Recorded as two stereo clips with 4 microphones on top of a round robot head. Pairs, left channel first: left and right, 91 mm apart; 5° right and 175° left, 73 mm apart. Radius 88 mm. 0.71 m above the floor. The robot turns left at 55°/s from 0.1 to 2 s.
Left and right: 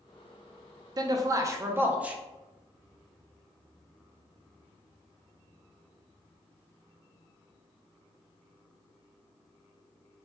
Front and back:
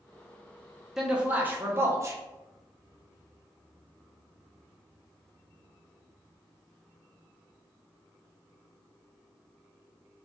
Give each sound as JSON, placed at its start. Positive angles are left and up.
{"t": 1.0, "sound": "a man speaking", "azimuth_deg": -100, "distance_m": 0.6}